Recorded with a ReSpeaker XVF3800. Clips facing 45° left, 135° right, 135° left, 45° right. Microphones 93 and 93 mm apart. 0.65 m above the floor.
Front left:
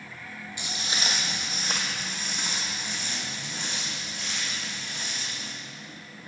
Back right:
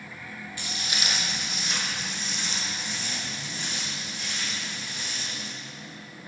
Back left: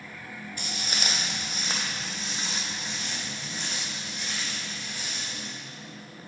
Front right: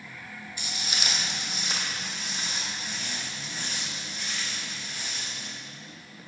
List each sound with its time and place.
0.6 s footsteps: 110° left, 1.1 m; by 5.5 s 60° left, 3.5 m